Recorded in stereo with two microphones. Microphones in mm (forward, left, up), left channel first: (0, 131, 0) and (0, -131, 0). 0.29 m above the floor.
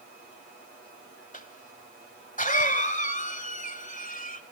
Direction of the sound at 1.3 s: 30° left (ahead or behind).